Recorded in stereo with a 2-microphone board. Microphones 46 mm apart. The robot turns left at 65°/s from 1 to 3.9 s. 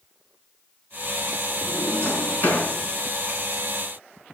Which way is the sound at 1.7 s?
5° left (ahead or behind).